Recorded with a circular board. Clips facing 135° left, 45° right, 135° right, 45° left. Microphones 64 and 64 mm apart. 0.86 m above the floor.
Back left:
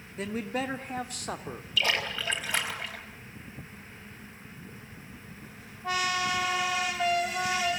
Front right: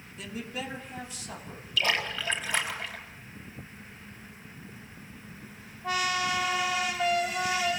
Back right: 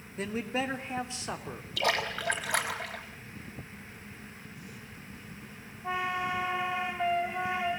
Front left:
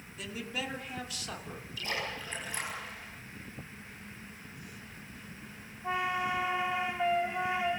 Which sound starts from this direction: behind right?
A splash, at 1.8 s.